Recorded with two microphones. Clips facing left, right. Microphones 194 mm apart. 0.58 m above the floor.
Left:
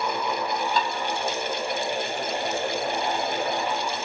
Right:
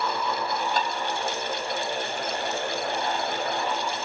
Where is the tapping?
50° right (ahead or behind), 3 m.